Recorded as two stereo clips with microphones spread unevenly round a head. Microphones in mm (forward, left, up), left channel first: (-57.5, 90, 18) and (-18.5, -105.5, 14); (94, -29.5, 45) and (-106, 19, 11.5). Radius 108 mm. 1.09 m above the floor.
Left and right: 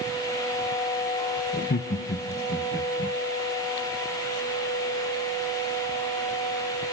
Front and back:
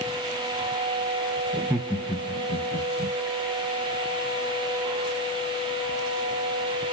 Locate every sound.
1.5 s laughter: 125° left, 0.6 m; by 3.1 s 50° left, 1.8 m